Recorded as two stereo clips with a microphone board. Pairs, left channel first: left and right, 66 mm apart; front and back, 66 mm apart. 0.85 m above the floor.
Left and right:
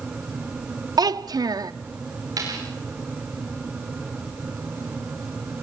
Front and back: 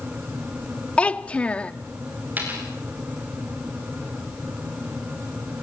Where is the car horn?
No car horn in this recording.